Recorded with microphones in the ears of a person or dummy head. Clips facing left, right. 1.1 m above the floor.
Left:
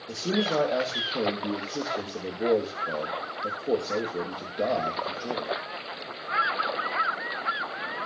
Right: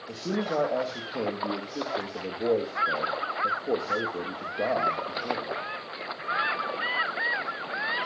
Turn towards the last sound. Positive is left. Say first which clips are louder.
# left 2 dB
turn(degrees=5)  # may be behind; listen again after turning